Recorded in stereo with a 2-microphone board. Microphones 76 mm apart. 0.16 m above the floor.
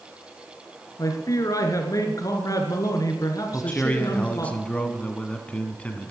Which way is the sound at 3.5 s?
20° left (ahead or behind).